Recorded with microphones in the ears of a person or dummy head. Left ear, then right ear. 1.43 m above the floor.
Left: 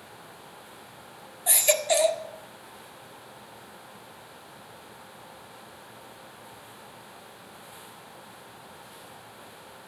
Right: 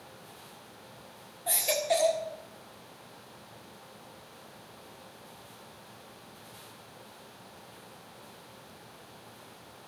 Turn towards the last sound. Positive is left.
turn(degrees=35)  # may be behind; listen again after turning